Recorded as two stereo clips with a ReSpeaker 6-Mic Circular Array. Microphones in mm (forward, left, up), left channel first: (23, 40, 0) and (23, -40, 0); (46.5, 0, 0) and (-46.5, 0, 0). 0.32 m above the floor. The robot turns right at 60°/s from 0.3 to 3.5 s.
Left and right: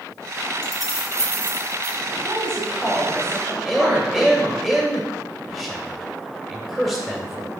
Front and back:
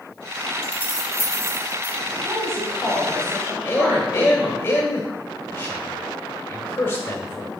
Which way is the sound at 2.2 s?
160° left.